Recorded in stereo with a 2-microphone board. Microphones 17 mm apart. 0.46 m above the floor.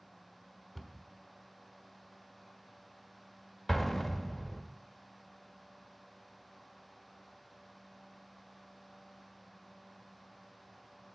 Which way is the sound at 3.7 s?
10° left (ahead or behind).